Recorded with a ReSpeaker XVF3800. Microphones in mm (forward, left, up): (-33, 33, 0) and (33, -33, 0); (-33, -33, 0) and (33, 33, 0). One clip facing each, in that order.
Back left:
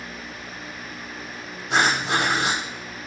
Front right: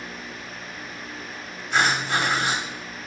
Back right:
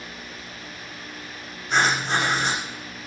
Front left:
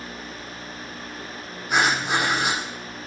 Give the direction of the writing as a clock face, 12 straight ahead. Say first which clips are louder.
Back left 1 dB, even; 8 o'clock.